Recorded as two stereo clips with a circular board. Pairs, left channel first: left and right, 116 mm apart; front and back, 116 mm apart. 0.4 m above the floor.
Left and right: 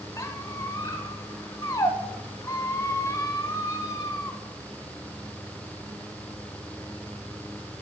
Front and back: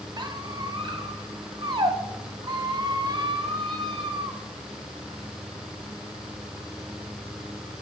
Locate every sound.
0.2 s a squeak: 145° left, 0.7 m